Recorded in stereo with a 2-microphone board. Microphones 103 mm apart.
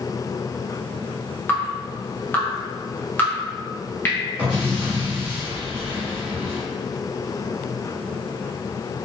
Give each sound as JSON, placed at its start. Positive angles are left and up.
{"t": 1.5, "sound": "dripping", "side_deg": 20, "distance_m": 0.6}
{"t": 4.4, "sound": "an explosion", "side_deg": -15, "distance_m": 1.5}